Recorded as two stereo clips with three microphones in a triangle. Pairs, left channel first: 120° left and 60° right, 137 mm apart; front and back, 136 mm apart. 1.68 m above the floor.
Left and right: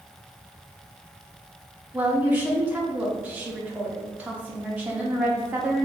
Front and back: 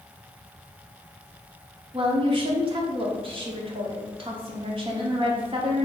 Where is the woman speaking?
135° right, 0.7 m.